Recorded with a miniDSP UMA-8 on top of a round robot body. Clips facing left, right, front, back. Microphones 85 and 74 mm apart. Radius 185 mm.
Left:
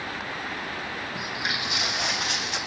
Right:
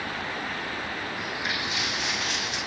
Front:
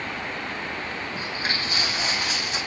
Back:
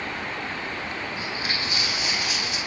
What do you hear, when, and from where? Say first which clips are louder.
1.1 s footsteps: even, front 1 dB; 55° left, 3 m